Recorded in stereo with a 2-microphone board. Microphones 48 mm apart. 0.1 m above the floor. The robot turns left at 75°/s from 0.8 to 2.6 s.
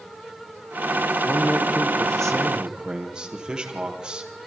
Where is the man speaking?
80° left, 3 m; by 4.3 s 20° right, 3 m.